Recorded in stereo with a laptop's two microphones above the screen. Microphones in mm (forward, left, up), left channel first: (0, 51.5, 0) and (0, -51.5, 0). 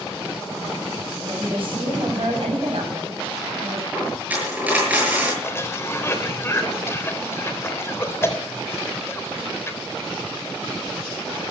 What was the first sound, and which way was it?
A woman speaking, 55° right (ahead or behind).